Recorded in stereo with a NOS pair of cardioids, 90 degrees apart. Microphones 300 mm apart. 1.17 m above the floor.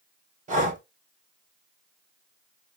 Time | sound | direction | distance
0.5 | breathing | 25° right | 0.8 m